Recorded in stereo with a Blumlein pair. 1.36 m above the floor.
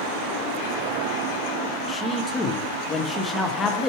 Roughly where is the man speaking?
Ahead.